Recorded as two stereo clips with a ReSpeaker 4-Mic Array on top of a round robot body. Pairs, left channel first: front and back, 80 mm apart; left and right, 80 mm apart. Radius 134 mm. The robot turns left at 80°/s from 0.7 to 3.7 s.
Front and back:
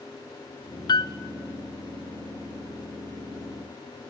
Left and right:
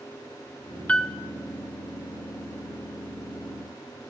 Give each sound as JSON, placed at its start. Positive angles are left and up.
{"t": 0.9, "sound": "a piano", "azimuth_deg": 15, "distance_m": 1.0}